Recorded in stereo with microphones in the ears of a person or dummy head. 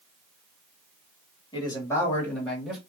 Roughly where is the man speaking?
Left.